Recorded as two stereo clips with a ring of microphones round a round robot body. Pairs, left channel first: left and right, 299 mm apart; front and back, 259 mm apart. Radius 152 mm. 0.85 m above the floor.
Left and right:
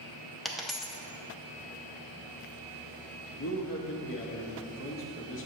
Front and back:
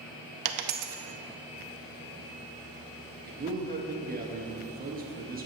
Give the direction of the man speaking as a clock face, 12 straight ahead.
8 o'clock.